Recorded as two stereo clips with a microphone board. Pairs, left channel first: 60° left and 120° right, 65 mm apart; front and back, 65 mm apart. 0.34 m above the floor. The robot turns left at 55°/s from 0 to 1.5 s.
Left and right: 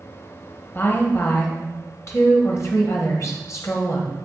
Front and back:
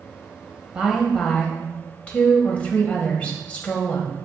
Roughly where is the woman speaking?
Left.